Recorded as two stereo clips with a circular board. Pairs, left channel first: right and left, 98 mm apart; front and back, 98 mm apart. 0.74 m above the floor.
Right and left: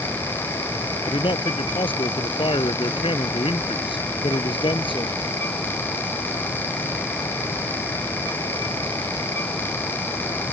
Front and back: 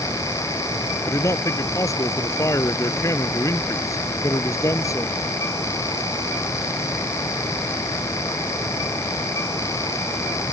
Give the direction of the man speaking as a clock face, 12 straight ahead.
2 o'clock.